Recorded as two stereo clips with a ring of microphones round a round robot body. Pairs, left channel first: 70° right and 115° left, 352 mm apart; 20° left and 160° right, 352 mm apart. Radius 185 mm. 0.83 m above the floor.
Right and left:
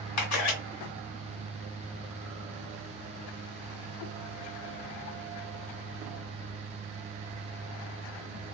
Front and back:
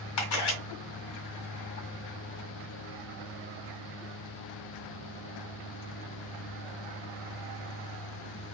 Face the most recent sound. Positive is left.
turn(degrees=-20)